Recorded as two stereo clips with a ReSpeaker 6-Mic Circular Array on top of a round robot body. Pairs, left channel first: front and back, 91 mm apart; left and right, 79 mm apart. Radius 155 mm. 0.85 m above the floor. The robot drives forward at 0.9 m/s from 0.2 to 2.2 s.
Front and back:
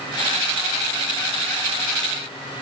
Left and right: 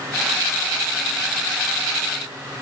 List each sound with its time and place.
Only background noise.